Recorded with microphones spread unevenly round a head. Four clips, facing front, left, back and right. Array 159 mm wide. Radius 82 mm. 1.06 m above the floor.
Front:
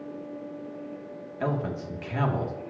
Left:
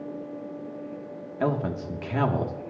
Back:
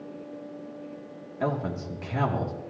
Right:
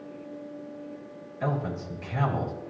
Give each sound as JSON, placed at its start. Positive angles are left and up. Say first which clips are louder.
{"t": 1.4, "sound": "a man speaking", "louder": "left 4 dB, back 1 dB", "azimuth_deg": 100, "distance_m": 2.0}